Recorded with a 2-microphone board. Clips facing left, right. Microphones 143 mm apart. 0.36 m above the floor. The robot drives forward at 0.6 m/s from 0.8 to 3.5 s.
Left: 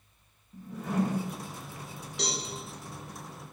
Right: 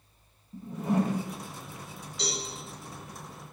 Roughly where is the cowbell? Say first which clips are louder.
Even; left.